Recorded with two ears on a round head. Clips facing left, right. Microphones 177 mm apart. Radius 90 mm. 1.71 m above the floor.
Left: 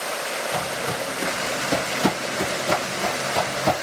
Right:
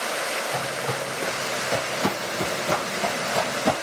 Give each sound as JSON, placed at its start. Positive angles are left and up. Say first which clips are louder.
{"t": 0.5, "sound": "footsteps", "louder": "left 1 dB", "side_deg": 35, "distance_m": 2.5}